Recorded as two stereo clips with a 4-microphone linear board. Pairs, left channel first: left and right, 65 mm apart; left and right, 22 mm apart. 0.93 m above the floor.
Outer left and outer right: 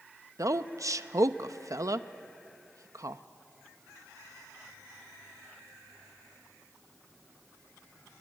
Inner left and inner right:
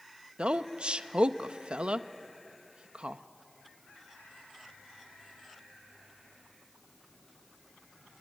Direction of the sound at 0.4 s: 60° right (ahead or behind).